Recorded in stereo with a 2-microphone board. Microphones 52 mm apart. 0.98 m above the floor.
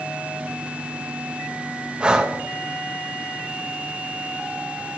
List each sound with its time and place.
2.0 s breathing: 20° right (ahead or behind), 0.8 m